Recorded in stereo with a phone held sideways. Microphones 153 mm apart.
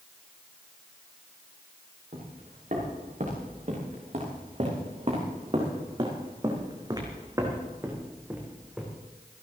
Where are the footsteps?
60° right (ahead or behind), 6 m; by 9.1 s 5° right (ahead or behind), 3.5 m.